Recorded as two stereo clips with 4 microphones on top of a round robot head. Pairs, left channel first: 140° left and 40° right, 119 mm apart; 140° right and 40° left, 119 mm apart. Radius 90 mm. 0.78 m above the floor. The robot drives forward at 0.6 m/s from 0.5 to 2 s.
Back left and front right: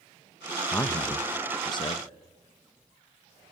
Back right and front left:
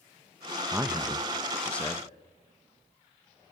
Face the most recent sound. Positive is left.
turn(degrees=150)